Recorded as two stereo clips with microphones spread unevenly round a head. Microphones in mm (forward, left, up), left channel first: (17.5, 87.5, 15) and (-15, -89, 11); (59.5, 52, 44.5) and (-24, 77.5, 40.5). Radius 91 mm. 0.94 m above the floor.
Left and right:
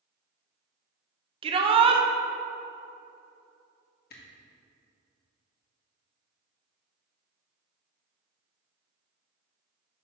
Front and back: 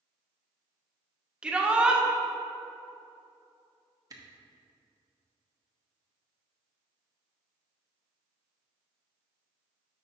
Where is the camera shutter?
115° left, 1.3 m.